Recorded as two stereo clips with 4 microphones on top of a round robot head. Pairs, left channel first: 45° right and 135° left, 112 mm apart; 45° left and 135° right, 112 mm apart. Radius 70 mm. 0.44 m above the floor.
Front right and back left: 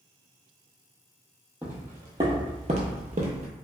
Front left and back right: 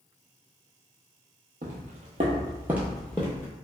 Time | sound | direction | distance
1.6 | footsteps | 150° right | 0.8 m